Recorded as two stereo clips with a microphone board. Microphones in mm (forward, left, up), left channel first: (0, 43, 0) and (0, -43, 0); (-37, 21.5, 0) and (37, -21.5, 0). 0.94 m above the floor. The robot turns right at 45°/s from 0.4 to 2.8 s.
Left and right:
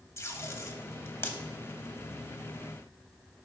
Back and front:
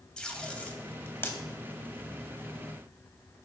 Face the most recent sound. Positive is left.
turn(degrees=-170)